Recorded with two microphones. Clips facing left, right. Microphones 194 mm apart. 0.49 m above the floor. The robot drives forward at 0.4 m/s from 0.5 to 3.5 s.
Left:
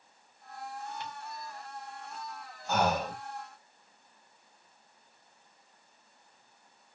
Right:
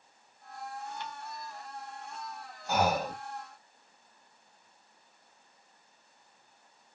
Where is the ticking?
15° left (ahead or behind), 1.6 m.